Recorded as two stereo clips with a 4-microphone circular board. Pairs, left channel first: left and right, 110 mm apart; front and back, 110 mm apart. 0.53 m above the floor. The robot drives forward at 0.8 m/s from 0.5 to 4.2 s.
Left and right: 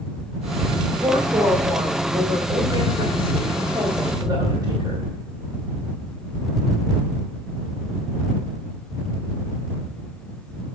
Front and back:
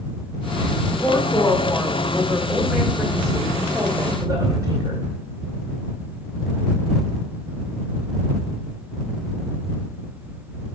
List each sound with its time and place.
0.9 s a woman speaking: 40° right, 2 m; by 5.1 s 135° right, 2 m